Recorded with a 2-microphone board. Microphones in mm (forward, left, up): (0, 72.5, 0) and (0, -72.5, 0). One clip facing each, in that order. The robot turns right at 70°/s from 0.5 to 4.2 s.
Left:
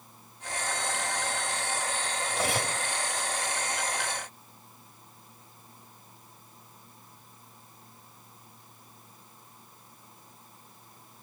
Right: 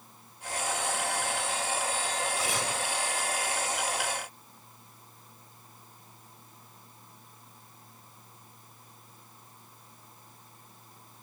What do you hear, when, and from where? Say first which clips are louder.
2.3 s cutlery clinking: left 2 dB; 105° left, 2.5 m; by 2.8 s 140° left, 2.5 m